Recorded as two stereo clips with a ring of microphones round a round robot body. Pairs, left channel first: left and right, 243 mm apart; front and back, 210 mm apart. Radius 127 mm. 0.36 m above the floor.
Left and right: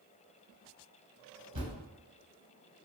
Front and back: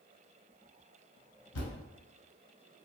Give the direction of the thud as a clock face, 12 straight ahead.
1 o'clock.